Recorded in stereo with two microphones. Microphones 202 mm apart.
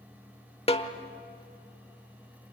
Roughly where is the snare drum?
Left.